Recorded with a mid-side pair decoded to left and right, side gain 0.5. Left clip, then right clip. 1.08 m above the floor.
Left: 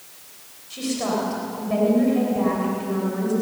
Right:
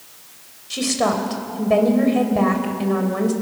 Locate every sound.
0.7 s a woman speaking: 55° right, 4 m